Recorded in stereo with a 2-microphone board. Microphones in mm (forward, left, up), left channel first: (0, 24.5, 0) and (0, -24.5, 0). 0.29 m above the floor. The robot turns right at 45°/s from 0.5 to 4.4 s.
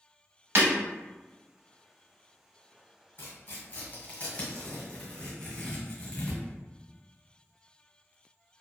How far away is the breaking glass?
About 0.8 m.